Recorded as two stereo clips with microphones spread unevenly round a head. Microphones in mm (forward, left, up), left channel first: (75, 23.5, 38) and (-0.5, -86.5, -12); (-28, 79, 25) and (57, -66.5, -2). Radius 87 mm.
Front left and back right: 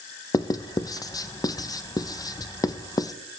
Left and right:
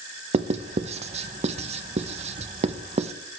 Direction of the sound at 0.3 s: 20° right.